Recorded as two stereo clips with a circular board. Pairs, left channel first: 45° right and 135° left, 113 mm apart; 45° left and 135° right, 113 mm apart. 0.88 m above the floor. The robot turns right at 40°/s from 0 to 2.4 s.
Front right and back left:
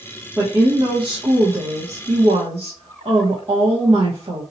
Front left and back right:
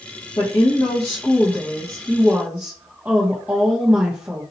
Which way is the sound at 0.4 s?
70° left.